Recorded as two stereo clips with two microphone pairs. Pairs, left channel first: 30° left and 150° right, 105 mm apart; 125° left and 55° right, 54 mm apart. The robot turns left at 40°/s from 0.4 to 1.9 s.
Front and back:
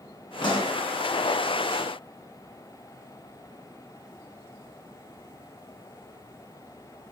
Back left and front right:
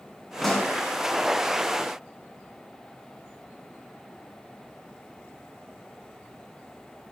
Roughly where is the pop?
Ahead left.